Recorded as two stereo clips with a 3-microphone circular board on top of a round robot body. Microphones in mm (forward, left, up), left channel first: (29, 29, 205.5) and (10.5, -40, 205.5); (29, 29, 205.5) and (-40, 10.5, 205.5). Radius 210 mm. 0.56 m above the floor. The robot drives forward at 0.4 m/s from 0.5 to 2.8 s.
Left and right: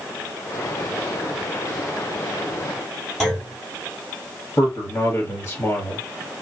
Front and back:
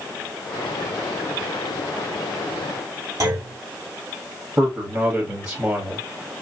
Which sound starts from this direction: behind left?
A man speaking, at 4.6 s.